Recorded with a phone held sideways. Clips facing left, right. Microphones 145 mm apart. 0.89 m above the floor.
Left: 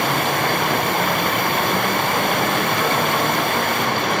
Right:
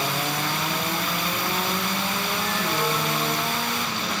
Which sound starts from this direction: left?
Running water, at 0.0 s.